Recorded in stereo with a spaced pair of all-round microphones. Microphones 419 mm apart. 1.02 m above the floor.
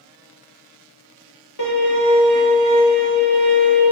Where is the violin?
45° left (ahead or behind), 1.0 m.